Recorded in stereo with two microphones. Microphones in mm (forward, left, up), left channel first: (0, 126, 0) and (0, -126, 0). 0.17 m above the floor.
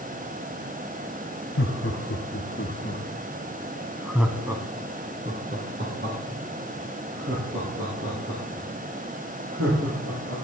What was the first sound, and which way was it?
Laughter, 55° left (ahead or behind).